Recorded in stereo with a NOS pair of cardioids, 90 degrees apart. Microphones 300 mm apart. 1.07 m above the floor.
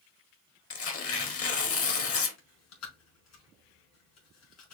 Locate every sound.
0.7 s tearing paper: 55° left, 1.4 m
2.4 s chewing: 70° left, 4 m